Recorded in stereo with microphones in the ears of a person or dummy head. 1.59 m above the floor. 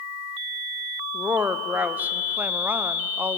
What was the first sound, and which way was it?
A woman speaking, 5° right (ahead or behind).